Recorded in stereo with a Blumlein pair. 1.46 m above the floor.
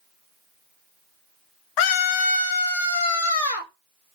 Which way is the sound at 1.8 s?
45° left.